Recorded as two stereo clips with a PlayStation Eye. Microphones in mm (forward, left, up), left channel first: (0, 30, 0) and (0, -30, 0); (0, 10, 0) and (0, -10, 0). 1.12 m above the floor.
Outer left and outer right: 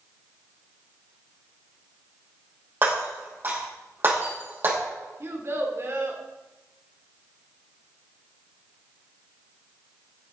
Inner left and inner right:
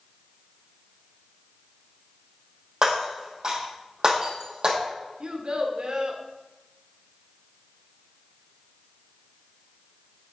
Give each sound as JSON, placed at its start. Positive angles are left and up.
{"t": 2.8, "sound": "breaking glass", "side_deg": -35, "distance_m": 4.5}
{"t": 5.2, "sound": "a child speaking", "side_deg": -45, "distance_m": 1.6}